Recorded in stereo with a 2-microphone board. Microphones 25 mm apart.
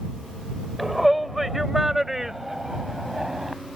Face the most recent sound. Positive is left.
turn(degrees=-20)  # may be behind; listen again after turning